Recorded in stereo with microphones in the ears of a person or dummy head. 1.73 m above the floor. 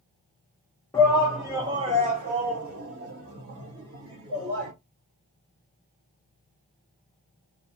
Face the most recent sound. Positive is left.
turn(degrees=-80)